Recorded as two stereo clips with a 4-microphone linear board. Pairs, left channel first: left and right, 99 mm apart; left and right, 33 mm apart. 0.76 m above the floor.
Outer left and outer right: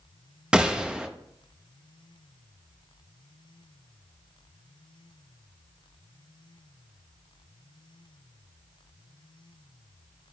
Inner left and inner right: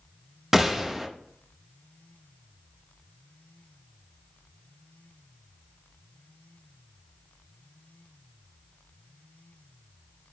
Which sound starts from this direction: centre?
A gunshot, at 0.5 s.